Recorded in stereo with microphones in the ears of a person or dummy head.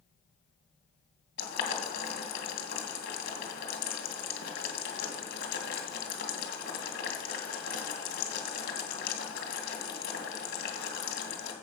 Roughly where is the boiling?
Left.